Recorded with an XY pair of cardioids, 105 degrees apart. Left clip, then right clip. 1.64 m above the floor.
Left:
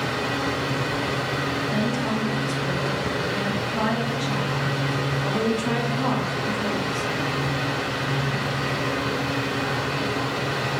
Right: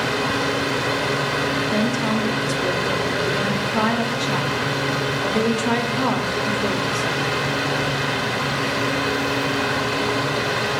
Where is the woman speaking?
50° right, 0.8 m.